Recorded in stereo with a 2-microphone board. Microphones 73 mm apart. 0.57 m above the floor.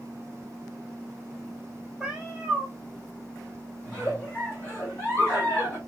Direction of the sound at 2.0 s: 5° right (ahead or behind).